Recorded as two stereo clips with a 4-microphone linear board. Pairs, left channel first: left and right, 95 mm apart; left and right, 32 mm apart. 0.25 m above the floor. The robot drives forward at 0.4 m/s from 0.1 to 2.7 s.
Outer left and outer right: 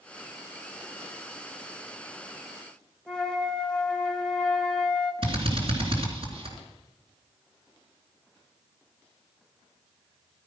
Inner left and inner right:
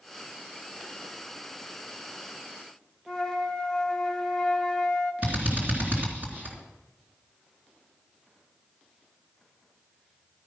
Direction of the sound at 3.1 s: 10° left (ahead or behind).